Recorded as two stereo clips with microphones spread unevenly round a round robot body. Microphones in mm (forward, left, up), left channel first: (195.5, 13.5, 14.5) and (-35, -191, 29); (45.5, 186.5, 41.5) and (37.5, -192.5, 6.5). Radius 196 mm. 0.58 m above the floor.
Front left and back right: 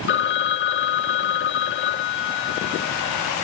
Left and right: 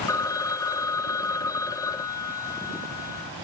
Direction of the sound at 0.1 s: 5° left.